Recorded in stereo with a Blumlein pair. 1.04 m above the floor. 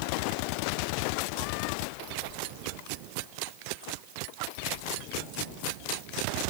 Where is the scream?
I don't hear a scream.